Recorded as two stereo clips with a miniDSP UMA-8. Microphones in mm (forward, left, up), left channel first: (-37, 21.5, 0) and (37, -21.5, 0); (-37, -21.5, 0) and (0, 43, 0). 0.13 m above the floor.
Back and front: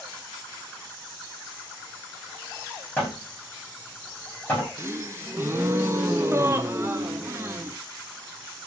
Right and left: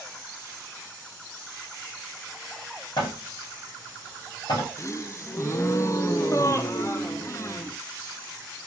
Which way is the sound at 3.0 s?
145° right.